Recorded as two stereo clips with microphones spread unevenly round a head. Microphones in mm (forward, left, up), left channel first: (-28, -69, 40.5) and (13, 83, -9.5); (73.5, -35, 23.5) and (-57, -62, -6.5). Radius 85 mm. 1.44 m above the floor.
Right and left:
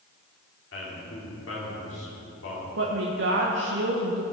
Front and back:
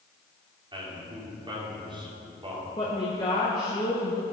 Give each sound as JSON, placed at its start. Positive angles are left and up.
{"t": 0.7, "sound": "a man speaking", "azimuth_deg": -110, "distance_m": 3.5}
{"t": 2.8, "sound": "a woman speaking", "azimuth_deg": 75, "distance_m": 1.1}